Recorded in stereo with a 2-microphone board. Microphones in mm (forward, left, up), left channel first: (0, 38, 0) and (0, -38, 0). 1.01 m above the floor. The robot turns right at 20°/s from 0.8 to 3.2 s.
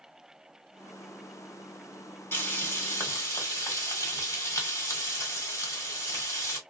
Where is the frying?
35° left (ahead or behind), 1.4 m; by 6.6 s 45° left (ahead or behind), 1.4 m.